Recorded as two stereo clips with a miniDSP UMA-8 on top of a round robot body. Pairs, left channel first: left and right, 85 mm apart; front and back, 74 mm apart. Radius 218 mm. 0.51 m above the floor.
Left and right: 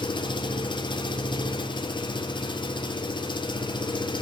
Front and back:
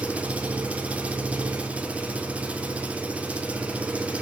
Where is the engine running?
110° left, 1.9 m.